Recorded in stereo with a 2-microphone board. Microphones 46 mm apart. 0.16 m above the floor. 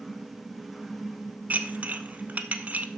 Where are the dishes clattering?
35° right (ahead or behind), 0.8 m.